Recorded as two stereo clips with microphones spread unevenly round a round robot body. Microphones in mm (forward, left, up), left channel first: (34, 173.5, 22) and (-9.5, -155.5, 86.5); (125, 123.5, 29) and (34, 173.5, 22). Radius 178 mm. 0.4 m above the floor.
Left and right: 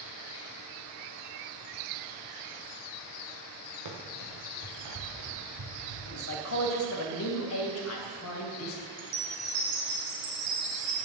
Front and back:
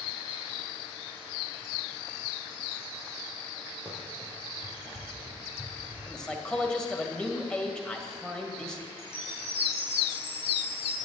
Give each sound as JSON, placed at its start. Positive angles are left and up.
{"t": 3.9, "sound": "running footsteps", "azimuth_deg": -125, "distance_m": 3.0}
{"t": 6.1, "sound": "a man speaking", "azimuth_deg": 55, "distance_m": 2.5}
{"t": 9.0, "sound": "a chime", "azimuth_deg": -65, "distance_m": 5.0}